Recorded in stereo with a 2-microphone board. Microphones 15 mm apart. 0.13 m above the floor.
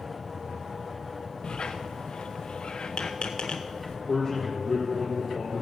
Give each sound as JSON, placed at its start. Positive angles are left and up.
{"t": 1.4, "sound": "a squeak", "side_deg": 65, "distance_m": 1.0}
{"t": 4.1, "sound": "a man speaking", "side_deg": 0, "distance_m": 3.5}